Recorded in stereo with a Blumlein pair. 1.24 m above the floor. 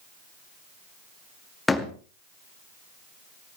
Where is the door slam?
10° left, 2 m.